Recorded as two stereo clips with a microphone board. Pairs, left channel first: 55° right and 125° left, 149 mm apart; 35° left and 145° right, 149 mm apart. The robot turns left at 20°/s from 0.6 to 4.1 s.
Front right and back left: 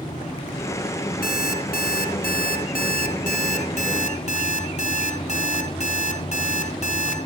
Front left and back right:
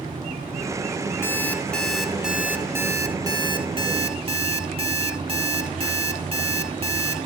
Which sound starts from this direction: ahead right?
An alarm clock, at 1.2 s.